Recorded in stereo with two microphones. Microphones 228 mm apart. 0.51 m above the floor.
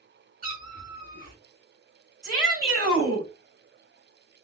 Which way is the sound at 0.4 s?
35° right (ahead or behind).